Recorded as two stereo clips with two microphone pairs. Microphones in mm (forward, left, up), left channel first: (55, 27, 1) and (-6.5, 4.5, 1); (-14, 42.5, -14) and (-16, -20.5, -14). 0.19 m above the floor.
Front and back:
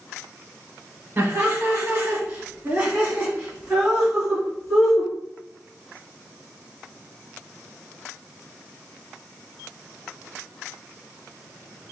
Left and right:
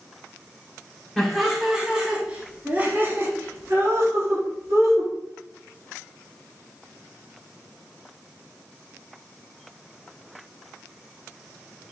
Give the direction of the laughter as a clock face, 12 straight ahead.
7 o'clock.